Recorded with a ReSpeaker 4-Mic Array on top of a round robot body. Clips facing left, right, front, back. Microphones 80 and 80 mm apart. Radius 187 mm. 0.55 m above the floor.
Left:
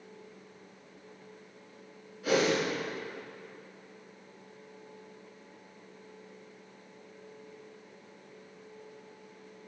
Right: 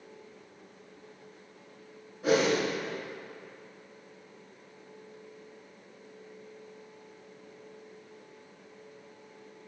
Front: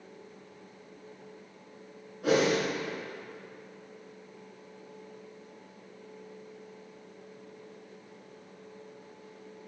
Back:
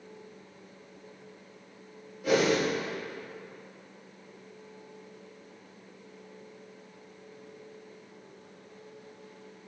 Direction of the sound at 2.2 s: 30° right.